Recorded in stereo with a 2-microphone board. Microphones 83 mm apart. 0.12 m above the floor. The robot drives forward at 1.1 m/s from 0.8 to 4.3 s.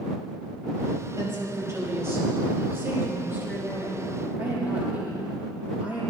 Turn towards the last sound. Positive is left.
turn(degrees=-20)  # may be behind; listen again after turning